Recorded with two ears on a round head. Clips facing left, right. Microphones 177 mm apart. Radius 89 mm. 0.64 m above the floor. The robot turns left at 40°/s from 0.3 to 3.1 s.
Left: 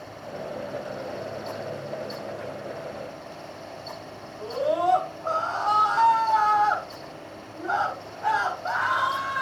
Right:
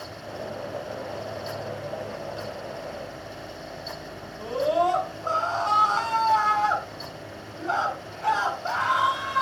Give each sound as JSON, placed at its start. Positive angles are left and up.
{"t": 4.4, "sound": "a scream", "side_deg": -40, "distance_m": 7.0}